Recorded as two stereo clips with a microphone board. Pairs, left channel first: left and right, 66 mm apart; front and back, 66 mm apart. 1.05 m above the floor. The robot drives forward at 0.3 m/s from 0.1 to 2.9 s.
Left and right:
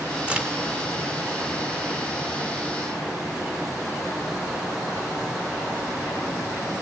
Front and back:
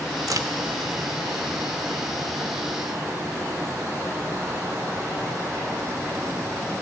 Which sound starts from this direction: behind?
A crack, at 0.3 s.